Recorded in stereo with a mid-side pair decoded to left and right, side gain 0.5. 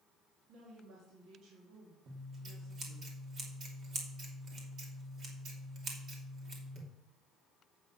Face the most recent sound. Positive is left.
turn(degrees=-55)